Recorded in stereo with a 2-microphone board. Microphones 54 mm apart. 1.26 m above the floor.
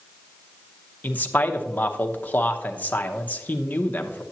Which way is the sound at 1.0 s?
35° left (ahead or behind).